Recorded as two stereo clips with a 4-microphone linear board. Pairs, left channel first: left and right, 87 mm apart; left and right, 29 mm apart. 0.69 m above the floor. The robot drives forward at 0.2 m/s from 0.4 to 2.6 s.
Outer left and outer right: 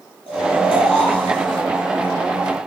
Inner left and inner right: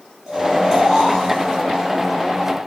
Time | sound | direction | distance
0.3 | snoring | 15° right (ahead or behind) | 6 m